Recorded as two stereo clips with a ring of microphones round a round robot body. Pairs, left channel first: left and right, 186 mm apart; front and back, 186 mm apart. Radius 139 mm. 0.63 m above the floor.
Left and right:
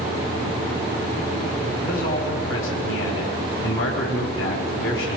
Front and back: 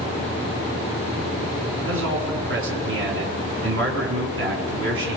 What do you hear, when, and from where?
1.9 s a man speaking: 170° left, 5.5 m